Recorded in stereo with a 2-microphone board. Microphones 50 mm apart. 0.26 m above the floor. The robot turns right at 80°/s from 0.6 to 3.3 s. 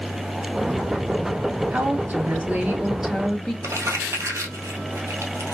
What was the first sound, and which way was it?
A woman speaking, 120° right.